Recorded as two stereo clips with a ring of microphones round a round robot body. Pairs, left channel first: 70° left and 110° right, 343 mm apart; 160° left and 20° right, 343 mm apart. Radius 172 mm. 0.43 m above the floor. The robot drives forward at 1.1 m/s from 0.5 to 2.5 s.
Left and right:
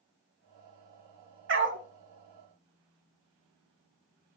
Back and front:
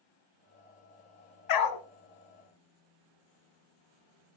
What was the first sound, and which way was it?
A dog barking, 170° right.